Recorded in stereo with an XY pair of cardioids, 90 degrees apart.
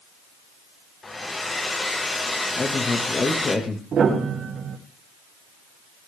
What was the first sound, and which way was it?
A hair dryer, 30° left.